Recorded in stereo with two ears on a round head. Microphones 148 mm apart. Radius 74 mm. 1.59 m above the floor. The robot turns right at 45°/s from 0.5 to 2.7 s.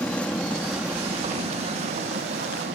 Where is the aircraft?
175° left; by 2.8 s 90° right.